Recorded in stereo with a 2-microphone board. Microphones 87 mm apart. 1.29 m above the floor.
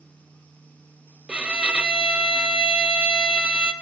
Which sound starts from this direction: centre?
A violin, at 1.3 s.